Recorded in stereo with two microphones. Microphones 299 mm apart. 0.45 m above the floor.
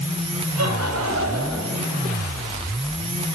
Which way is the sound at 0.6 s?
60° right (ahead or behind).